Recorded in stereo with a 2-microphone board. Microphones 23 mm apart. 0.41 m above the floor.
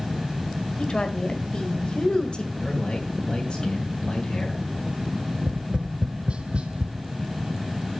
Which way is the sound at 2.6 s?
45° left (ahead or behind).